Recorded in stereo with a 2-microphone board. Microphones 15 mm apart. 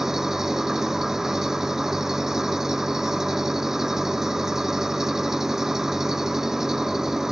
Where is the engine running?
35° right (ahead or behind).